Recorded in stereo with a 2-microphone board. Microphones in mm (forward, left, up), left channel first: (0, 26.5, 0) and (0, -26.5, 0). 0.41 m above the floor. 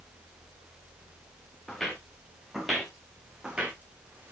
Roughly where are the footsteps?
Centre.